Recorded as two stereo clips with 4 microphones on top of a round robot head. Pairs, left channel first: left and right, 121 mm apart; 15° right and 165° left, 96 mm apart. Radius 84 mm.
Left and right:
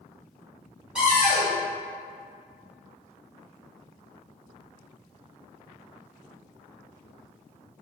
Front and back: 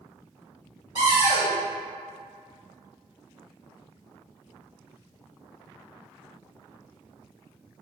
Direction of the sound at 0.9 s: 170° right.